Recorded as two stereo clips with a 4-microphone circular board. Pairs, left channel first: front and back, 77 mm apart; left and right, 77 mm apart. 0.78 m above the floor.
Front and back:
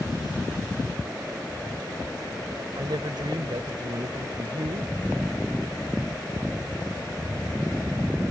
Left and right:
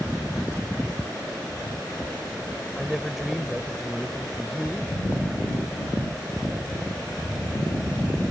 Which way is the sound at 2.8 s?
175° right.